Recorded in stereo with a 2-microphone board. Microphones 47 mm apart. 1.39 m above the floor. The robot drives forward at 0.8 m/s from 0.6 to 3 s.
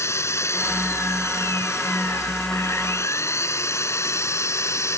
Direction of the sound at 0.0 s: 75° left (ahead or behind).